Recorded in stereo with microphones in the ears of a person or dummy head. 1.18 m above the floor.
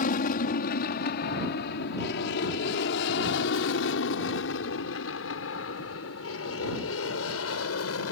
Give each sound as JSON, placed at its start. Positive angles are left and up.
{"t": 0.0, "sound": "an aircraft", "side_deg": 55}